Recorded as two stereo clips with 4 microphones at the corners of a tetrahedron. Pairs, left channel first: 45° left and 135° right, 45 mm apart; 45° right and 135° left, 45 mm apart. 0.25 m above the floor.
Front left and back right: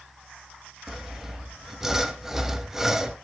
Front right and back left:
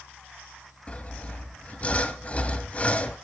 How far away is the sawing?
About 0.8 m.